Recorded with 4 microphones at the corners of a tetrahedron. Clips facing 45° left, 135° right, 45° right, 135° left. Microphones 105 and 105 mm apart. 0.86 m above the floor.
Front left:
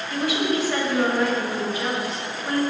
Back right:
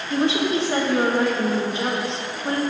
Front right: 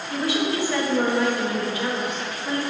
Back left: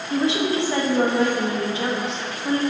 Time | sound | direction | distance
0.1 | a woman speaking | straight behind | 0.8 m